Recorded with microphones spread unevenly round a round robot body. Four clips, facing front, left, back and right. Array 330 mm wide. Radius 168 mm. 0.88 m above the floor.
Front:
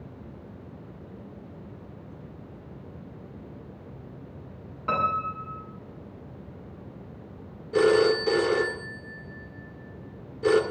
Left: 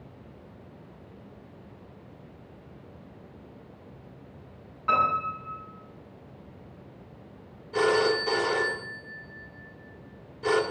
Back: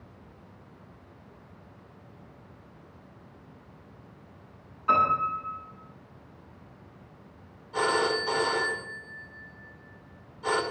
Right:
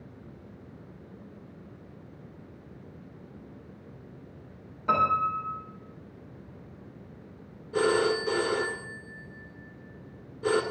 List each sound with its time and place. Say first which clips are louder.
4.9 s a piano: even, back 3 dB; 30° right, 8.5 m
7.7 s a phone ringing: left 1 dB, front 6 dB; 10° right, 2 m